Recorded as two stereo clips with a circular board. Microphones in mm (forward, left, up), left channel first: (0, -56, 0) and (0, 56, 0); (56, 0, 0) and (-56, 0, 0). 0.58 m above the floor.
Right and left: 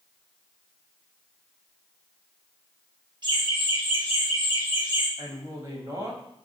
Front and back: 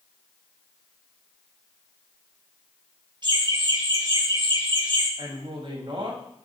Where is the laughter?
135° left, 5.5 m; by 5.1 s 140° left, 6.5 m.